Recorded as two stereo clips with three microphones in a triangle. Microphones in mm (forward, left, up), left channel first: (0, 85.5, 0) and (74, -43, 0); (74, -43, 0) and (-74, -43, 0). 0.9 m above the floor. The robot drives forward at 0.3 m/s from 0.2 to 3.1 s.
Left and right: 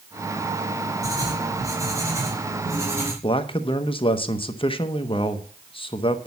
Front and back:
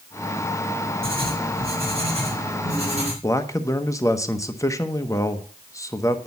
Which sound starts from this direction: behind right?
Writing, at 1.0 s.